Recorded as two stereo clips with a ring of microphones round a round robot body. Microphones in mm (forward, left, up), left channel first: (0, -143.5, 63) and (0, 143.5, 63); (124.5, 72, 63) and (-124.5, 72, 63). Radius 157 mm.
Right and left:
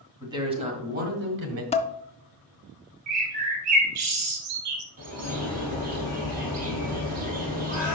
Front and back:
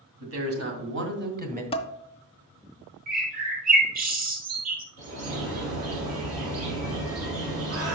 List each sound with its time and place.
0.2 s a man speaking: 170° left, 2.5 m; by 1.6 s 125° left, 1.8 m
1.7 s dishes clattering: 45° right, 0.6 m
3.1 s a bird: 125° left, 2.5 m
5.0 s a bird: 150° left, 3.5 m